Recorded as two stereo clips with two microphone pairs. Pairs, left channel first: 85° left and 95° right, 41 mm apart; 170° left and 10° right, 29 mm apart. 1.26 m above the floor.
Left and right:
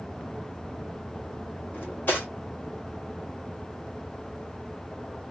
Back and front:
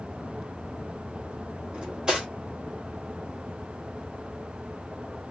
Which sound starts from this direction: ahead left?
Cutlery clinking, at 1.7 s.